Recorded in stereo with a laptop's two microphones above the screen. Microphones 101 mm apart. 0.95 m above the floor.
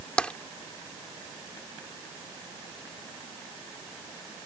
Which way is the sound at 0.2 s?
10° left (ahead or behind).